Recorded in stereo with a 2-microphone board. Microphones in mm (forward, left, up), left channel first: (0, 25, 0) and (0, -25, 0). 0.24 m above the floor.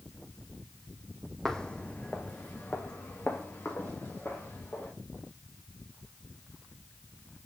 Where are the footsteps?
10° left (ahead or behind), 0.6 m; by 4.9 s 45° left (ahead or behind), 3 m.